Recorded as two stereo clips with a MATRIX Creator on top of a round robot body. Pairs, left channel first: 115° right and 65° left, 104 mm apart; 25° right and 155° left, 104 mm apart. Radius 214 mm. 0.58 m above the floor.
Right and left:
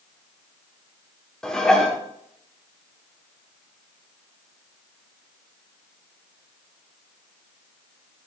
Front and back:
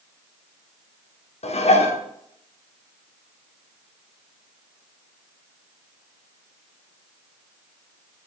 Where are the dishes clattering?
30° right, 1.2 m.